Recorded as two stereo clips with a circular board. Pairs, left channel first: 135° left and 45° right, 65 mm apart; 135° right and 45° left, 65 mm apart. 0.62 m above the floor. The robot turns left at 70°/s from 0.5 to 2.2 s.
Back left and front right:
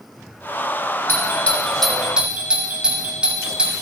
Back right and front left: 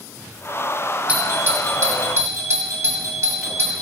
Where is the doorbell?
105° left, 2.0 m; by 3.7 s 25° left, 2.0 m.